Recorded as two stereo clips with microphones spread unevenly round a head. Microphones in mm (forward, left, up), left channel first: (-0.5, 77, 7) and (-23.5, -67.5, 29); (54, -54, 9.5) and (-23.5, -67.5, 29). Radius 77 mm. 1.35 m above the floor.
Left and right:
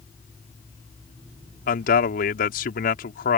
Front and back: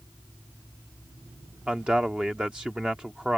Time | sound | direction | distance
1.7 | a man speaking | 105° left | ?